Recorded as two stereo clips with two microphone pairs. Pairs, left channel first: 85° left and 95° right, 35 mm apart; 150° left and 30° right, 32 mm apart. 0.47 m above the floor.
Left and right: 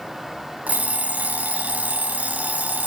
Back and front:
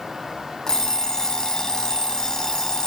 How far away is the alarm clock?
About 1.7 m.